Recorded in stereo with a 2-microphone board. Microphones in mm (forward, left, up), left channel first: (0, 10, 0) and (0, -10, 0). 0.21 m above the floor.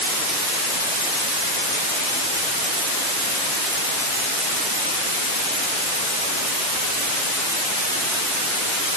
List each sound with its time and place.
Only background noise.